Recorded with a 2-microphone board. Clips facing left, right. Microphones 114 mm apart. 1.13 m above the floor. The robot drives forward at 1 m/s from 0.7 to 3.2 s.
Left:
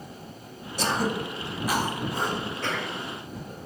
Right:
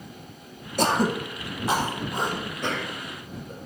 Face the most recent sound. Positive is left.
turn(degrees=-15)  # may be behind; listen again after turning